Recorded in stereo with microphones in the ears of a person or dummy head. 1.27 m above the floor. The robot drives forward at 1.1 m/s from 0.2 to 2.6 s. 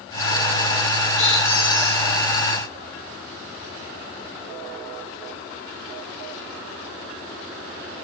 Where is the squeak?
45° left (ahead or behind), 1.4 m; by 2.1 s 25° left (ahead or behind), 2 m.